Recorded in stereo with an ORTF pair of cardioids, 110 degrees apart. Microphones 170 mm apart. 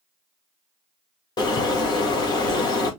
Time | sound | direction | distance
1.4 | a bird | 25° left | 2 m